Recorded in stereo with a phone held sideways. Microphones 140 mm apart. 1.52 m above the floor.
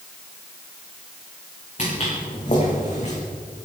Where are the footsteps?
55° left (ahead or behind), 7 m; by 3.1 s 50° left (ahead or behind), 5 m.